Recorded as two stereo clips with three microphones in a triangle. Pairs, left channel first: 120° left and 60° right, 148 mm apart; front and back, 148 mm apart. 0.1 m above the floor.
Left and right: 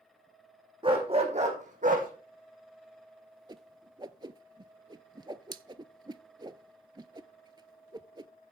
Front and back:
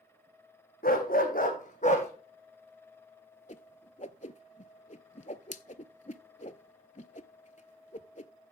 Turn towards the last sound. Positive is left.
turn(degrees=-5)